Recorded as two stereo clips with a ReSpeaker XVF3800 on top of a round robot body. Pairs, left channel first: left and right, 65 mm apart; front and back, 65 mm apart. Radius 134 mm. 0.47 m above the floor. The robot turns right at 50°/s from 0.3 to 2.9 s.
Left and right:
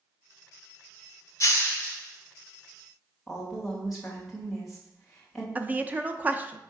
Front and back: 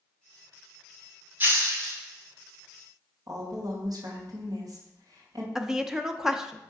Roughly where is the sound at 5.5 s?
Right.